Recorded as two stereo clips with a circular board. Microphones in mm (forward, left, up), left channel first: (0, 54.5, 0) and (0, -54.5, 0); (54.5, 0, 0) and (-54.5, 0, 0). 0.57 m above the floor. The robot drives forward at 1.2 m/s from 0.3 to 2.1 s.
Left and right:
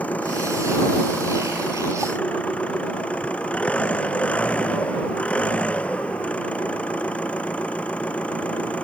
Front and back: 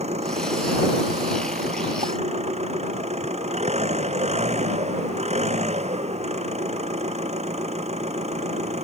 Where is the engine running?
170° left.